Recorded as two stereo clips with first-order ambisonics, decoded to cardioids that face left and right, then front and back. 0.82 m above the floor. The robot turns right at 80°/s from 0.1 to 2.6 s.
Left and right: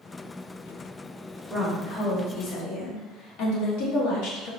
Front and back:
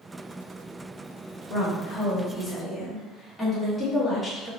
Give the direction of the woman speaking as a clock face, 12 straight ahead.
12 o'clock.